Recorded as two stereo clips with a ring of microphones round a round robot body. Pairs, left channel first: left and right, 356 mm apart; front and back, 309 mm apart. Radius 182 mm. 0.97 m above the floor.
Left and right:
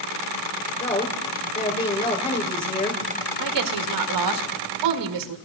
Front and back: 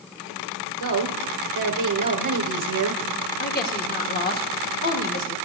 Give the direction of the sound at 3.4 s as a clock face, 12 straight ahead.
2 o'clock.